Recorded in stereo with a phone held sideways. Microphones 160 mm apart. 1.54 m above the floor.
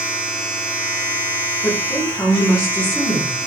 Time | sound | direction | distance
0.0 | a machine running | 15° left (ahead or behind) | 0.9 m
1.6 | a woman speaking | 15° left (ahead or behind) | 1.1 m